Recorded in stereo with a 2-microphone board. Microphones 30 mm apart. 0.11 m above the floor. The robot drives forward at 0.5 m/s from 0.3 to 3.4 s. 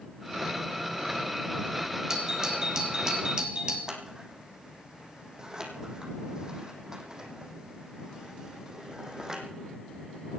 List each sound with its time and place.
2.1 s a doorbell: 25° right (ahead or behind), 3.5 m; by 3.8 s 30° right (ahead or behind), 3 m
3.9 s scissors: 25° right (ahead or behind), 2.5 m